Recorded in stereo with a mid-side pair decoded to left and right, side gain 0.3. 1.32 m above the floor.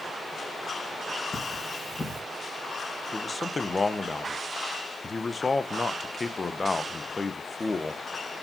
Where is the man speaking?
40° left, 0.9 m.